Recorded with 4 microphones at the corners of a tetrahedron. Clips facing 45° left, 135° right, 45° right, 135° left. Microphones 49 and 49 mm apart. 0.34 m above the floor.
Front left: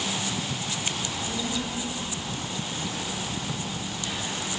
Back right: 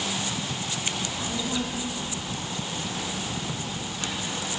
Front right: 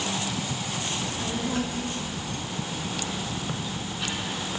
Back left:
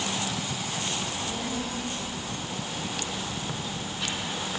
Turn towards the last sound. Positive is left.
turn(degrees=-140)